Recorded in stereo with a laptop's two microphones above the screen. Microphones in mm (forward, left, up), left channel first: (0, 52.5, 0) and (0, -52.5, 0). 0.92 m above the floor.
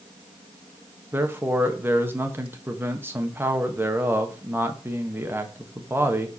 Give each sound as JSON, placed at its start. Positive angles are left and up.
{"t": 1.1, "sound": "a man speaking", "side_deg": -20, "distance_m": 0.9}